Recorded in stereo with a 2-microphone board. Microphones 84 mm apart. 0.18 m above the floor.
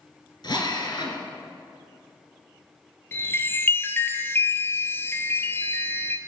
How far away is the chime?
About 1.1 m.